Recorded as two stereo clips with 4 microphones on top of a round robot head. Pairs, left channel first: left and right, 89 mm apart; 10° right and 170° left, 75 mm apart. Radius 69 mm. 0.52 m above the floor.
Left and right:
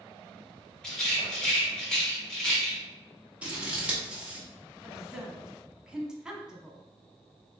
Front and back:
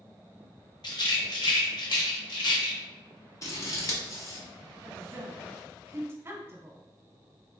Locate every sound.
0.8 s a rattle: 10° left, 1.1 m
3.4 s scissors: 20° right, 1.1 m
4.8 s a woman speaking: 165° right, 0.9 m